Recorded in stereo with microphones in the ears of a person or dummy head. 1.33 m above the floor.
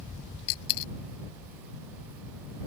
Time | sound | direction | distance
0.5 | a dropped coin | 75° left (ahead or behind) | ?